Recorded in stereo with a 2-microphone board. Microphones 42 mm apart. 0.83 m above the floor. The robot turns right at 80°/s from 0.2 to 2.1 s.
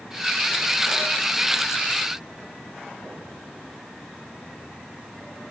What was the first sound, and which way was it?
Only background noise.